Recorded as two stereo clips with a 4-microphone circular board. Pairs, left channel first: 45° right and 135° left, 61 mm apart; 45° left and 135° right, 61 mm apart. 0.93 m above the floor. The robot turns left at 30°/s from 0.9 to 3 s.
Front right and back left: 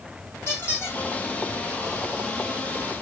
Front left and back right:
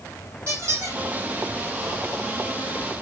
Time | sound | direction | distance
0.5 | a squeak | 100° right | 4 m